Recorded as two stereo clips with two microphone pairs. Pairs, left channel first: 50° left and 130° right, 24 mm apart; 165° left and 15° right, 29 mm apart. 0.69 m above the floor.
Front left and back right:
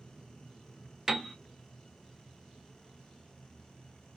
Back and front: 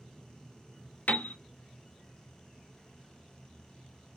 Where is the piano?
145° left, 0.6 m.